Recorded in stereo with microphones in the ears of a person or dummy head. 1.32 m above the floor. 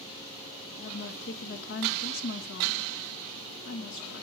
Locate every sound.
0.8 s a woman speaking: 65° left (ahead or behind), 2 m